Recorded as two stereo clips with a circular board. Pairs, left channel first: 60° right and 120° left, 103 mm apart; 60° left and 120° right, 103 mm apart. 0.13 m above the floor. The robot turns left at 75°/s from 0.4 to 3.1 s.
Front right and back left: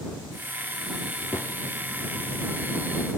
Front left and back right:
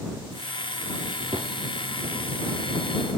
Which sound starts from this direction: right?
A gunshot, at 1.3 s.